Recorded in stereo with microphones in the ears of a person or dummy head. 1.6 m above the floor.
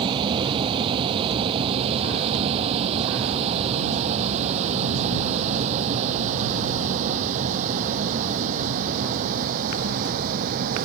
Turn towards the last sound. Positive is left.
turn(degrees=-45)  # may be behind; listen again after turning